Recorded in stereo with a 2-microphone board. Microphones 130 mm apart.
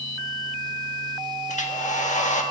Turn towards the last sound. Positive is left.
turn(degrees=70)  # may be behind; listen again after turning